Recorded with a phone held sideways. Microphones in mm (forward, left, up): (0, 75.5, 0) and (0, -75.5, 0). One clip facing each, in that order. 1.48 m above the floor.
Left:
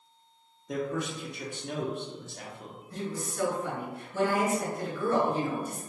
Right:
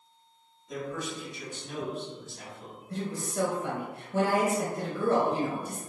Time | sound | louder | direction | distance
0.7 | a man speaking | left 3 dB | 65° left (ahead or behind) | 0.8 m
2.9 | a woman speaking | right 2 dB | 75° right (ahead or behind) | 1.1 m